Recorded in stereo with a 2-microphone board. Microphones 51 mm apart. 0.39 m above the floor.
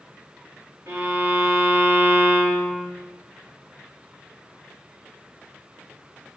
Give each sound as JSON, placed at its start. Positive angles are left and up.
{"t": 0.9, "sound": "a violin", "side_deg": -85, "distance_m": 1.6}